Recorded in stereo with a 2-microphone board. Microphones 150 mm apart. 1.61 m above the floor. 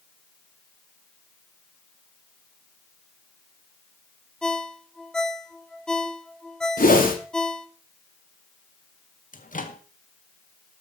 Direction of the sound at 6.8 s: 70° left (ahead or behind).